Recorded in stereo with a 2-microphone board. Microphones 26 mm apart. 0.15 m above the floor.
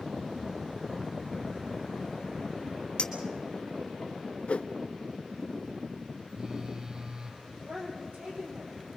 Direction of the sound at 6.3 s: 35° right (ahead or behind).